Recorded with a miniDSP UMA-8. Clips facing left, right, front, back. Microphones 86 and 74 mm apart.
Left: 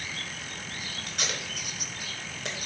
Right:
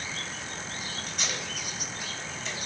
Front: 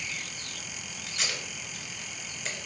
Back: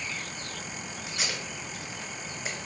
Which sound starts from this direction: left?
Tape being pulled, at 1.1 s.